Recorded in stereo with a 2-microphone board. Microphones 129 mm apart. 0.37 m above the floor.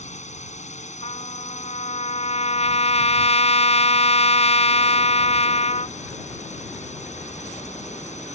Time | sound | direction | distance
0.0 | a drone | 65° left (ahead or behind) | ?
1.0 | a trumpet | 60° left (ahead or behind) | ?